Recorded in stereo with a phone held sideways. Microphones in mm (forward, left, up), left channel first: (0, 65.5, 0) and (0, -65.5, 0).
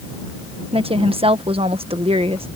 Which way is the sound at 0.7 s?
45° right (ahead or behind).